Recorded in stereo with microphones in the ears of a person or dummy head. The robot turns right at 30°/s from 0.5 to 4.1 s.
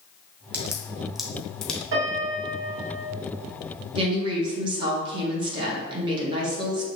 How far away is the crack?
About 0.7 m.